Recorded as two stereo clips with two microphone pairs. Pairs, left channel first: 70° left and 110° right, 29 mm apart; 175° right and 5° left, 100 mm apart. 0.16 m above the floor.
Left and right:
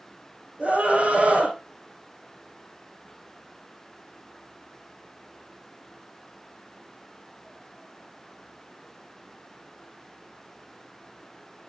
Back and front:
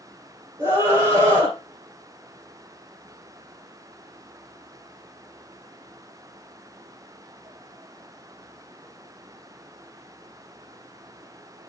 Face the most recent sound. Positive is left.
turn(degrees=-55)